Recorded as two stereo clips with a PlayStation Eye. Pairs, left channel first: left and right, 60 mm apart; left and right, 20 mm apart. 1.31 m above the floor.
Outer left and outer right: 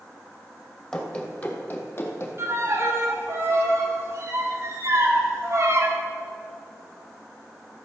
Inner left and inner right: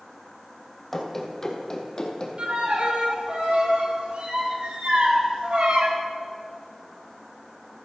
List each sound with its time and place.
0.9 s running footsteps: 15° left (ahead or behind), 1.8 m; by 2.3 s 45° left (ahead or behind), 2 m
2.4 s a violin: 50° right (ahead or behind), 2.0 m